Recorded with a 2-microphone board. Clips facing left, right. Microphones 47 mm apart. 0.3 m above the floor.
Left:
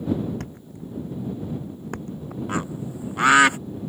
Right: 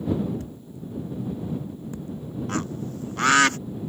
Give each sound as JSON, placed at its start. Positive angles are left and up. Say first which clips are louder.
{"t": 0.4, "sound": "a thud", "louder": "left 1 dB", "side_deg": 70}
{"t": 2.5, "sound": "a bird", "louder": "left 1 dB", "side_deg": 15}